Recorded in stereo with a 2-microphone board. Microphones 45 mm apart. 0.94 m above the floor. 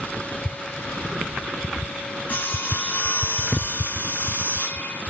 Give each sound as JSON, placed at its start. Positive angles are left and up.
{"t": 2.3, "sound": "sawing", "side_deg": 40, "distance_m": 2.0}